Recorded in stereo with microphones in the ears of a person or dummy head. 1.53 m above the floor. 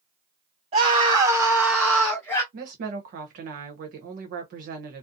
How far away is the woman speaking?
About 0.8 m.